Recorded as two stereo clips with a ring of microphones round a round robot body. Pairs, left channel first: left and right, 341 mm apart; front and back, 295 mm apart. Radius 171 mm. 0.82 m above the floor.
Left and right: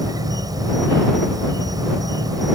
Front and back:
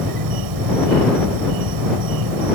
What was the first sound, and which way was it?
An insect, 170° right.